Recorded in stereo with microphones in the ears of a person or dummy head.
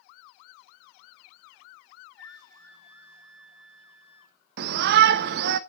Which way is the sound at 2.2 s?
15° left (ahead or behind).